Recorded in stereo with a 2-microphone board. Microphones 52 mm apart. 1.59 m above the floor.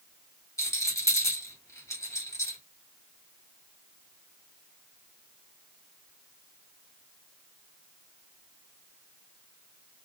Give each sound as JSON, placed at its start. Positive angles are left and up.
{"t": 0.6, "sound": "a rattle", "side_deg": 80, "distance_m": 1.7}